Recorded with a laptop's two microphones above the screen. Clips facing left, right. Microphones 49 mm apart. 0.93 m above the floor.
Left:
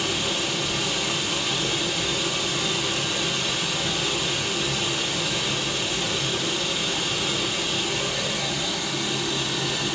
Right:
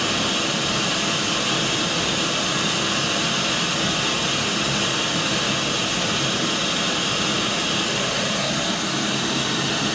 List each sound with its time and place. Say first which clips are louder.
0.0 s running water: right 4 dB; 75° right (ahead or behind), 4 m